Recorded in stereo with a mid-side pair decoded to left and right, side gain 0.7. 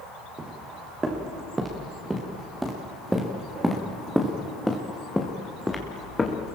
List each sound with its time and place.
0.4 s footsteps: 20° right, 5.5 m; by 6.5 s 20° left, 3.5 m